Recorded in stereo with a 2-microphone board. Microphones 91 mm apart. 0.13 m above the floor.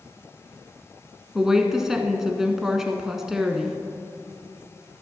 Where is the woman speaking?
5° right (ahead or behind), 1.1 m.